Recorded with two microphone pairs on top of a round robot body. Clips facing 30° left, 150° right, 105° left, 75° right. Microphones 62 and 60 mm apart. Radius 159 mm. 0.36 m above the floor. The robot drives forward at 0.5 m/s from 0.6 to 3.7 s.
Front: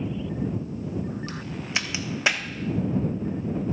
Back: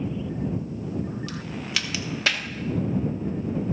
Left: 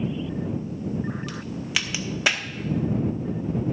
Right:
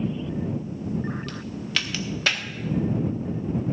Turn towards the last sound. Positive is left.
turn(degrees=140)